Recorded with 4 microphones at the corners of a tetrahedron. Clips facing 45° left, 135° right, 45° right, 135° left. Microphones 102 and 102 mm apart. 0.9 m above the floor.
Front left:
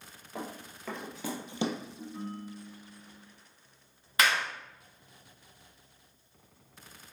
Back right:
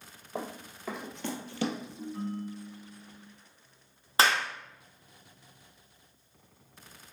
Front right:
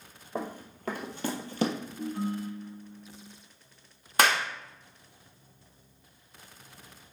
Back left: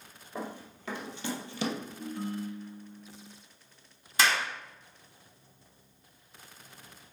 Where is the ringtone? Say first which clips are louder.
Back right 4 dB, front right 6 dB; 45° right, 3.5 m.